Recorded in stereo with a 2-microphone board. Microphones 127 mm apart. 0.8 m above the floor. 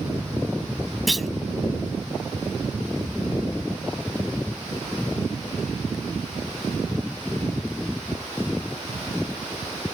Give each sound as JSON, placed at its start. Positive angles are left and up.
{"t": 1.1, "sound": "a clunk", "side_deg": 0}